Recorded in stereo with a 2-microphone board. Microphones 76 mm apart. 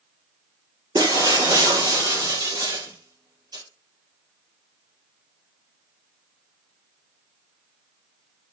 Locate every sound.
0.9 s breaking glass: 55° right (ahead or behind), 5 m